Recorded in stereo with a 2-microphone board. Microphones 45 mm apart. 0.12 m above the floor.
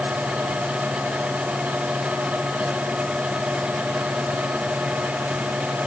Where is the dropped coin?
I don't hear a dropped coin.